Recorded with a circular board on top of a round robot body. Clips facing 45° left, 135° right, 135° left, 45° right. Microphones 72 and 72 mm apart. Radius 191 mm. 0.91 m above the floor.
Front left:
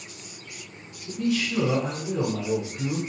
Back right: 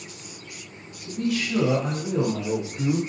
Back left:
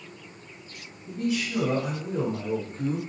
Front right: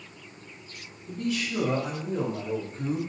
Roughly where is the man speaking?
Behind right.